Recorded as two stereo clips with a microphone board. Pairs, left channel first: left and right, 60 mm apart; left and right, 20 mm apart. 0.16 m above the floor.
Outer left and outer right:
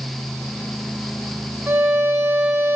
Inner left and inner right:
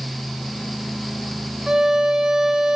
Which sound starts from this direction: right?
A violin, at 1.7 s.